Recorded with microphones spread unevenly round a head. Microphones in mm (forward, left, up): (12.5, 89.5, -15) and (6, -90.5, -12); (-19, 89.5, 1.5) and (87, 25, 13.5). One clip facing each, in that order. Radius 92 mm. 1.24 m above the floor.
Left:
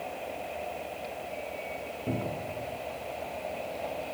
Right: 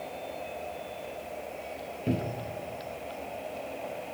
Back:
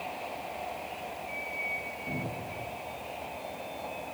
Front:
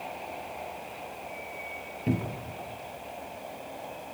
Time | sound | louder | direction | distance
2.1 | a cupboard door | right 2 dB, front 7 dB | 25° right | 1.3 m